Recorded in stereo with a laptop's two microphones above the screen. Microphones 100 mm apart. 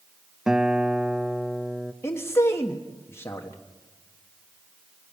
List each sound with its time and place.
0.5 s a guitar: 5° right (ahead or behind), 0.7 m
2.0 s a man speaking: 25° left (ahead or behind), 1.2 m